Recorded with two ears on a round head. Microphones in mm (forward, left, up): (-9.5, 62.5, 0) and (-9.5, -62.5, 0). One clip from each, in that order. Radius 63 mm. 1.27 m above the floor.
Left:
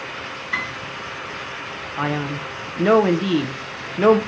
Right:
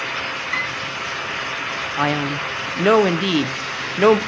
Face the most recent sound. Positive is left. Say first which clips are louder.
# right 3 dB
turn(degrees=-70)  # may be behind; listen again after turning